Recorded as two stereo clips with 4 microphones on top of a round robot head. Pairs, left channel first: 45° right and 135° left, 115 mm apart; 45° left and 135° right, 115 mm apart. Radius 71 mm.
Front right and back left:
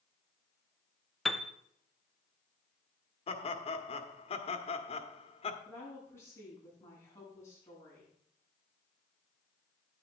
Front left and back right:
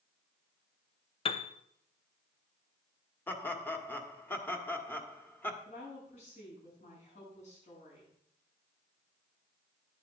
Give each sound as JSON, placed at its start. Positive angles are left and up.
{"t": 1.2, "sound": "a piano", "azimuth_deg": 40, "distance_m": 0.7}
{"t": 3.3, "sound": "laughter", "azimuth_deg": -25, "distance_m": 1.5}
{"t": 5.7, "sound": "a woman speaking", "azimuth_deg": 20, "distance_m": 7.0}